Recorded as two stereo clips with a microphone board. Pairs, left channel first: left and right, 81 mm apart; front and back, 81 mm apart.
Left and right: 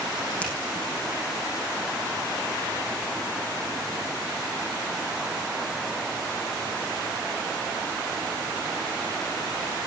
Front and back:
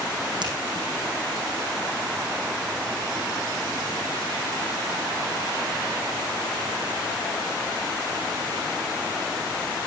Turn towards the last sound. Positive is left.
turn(degrees=160)